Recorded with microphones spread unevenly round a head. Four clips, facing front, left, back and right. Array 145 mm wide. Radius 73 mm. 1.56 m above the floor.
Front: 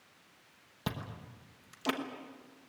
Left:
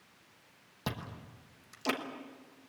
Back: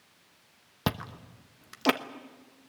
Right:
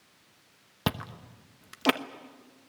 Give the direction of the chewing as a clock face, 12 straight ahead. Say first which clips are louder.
Right 7 dB, back 7 dB; 5 o'clock.